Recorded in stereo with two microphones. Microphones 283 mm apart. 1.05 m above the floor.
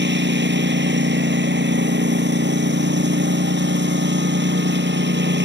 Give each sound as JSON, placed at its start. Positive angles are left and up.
{"t": 0.0, "sound": "a lawn mower", "side_deg": -40}